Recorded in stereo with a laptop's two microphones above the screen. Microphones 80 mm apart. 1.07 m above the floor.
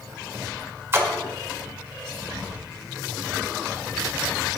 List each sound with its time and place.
0.9 s a splash: 25° right (ahead or behind), 1.9 m